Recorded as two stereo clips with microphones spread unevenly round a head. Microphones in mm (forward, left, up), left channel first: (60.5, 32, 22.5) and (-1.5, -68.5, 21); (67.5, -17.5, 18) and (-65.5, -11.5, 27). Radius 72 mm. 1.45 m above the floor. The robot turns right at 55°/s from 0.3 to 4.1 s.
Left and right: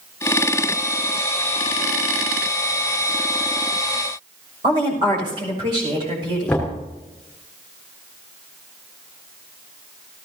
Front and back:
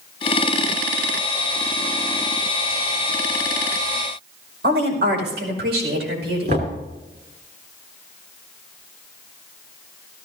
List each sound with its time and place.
4.6 s a woman speaking: 175° left, 5.5 m
6.5 s knocking: 140° left, 3 m